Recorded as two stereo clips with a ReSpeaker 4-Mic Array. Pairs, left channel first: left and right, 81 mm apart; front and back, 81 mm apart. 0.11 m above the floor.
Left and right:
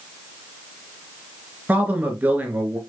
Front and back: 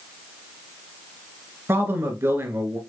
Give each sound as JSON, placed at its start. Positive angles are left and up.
{"t": 1.7, "sound": "a man speaking", "azimuth_deg": -145, "distance_m": 1.5}